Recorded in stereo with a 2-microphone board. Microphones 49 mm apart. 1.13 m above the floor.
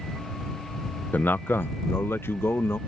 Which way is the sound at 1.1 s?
40° left (ahead or behind).